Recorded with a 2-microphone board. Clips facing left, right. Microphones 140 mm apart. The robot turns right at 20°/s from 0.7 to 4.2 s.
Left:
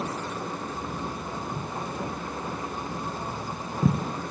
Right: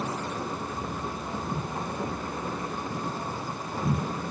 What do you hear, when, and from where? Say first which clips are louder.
1.3 s footsteps: right 1 dB; 15° right (ahead or behind), 6 m; by 4.0 s 80° left, 3.5 m